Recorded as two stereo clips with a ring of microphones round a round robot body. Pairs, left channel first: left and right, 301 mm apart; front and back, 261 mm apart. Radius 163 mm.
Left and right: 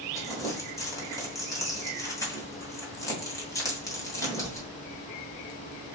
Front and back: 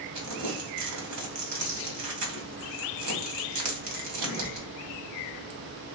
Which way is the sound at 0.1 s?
170° left.